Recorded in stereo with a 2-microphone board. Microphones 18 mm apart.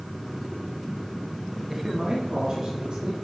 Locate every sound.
1.7 s a man speaking: 15° right (ahead or behind), 1.1 m; by 3.1 s 50° right (ahead or behind), 3 m